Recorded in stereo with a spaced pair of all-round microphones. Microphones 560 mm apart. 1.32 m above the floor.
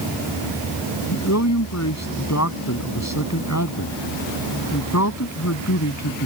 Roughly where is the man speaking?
Left.